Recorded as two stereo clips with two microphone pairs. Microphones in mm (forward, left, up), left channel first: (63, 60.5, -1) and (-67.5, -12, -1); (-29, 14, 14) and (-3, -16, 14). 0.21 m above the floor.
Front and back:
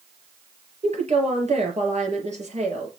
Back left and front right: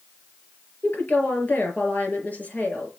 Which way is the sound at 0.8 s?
170° left.